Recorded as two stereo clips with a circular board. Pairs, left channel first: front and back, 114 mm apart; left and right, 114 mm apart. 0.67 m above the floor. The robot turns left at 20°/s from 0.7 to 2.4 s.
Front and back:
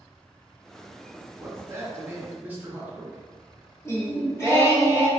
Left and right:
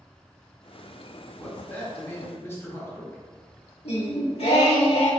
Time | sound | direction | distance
1.4 | a man speaking | 145° left | 0.7 m
3.9 | singing | 65° left | 0.8 m